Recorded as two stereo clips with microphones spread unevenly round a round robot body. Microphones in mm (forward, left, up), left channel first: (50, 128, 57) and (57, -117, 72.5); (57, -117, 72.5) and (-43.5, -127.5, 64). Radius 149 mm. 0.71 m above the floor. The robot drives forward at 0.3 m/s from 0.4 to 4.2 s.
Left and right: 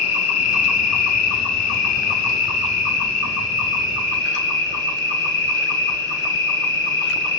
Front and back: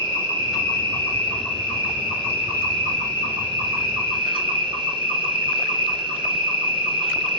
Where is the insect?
70° left, 0.8 m; by 7.4 s 140° left, 1.2 m.